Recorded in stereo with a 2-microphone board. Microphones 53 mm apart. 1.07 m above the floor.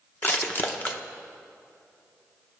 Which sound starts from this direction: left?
Crushing, at 0.2 s.